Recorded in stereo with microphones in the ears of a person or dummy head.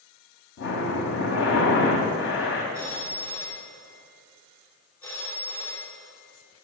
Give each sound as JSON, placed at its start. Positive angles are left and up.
{"t": 0.6, "sound": "breathing", "side_deg": 60, "distance_m": 2.0}
{"t": 2.7, "sound": "a phone ringing", "side_deg": 10, "distance_m": 1.8}